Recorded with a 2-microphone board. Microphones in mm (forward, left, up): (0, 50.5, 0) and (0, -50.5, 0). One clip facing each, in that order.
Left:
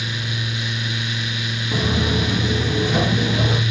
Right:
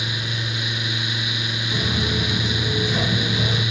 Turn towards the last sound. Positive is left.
turn(degrees=65)  # may be behind; listen again after turning